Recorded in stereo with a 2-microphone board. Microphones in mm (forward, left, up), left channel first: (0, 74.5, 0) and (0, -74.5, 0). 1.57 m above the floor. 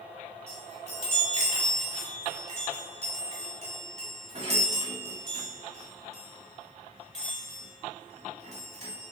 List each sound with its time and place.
0.5 s a chime: 45° right (ahead or behind), 1.8 m